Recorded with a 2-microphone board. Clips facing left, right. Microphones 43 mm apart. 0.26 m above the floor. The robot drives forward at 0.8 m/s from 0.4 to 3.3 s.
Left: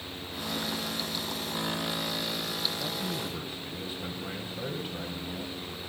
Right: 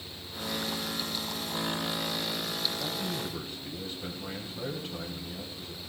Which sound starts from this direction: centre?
A man speaking, at 2.8 s.